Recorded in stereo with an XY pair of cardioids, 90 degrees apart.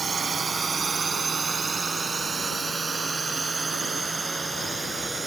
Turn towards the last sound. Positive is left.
turn(degrees=-25)